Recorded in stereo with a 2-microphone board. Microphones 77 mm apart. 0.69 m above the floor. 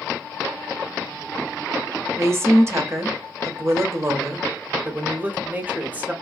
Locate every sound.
2.2 s a woman speaking: 35° right (ahead or behind), 0.6 m
4.8 s a man speaking: 20° right (ahead or behind), 0.6 m